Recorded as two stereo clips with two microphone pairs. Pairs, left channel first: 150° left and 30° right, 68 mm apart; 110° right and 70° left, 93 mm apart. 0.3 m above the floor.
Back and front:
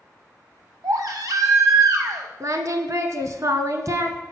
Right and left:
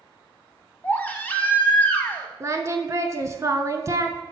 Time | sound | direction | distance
0.8 | a baby crying | 45° right | 0.8 m
2.4 | singing | 10° left | 0.5 m